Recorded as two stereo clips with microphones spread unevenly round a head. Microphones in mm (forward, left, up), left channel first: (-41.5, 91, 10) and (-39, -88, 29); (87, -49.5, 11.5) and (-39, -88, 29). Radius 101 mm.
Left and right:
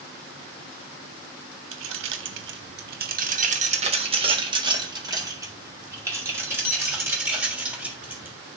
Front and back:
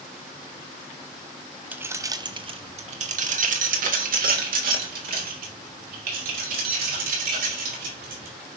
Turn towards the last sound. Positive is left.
turn(degrees=-170)